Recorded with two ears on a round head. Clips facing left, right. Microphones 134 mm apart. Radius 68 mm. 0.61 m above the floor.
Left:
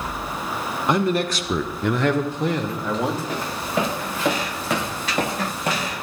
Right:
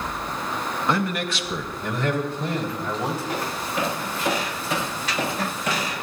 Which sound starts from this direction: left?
Footsteps, at 3.3 s.